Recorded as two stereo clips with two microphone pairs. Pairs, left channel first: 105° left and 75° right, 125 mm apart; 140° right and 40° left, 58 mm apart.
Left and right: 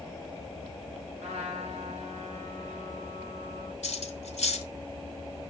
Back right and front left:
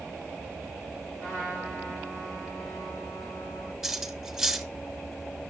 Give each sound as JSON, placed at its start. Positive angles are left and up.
{"t": 1.2, "sound": "a trumpet", "azimuth_deg": -65, "distance_m": 6.5}
{"t": 3.8, "sound": "cutlery clinking", "azimuth_deg": 125, "distance_m": 1.9}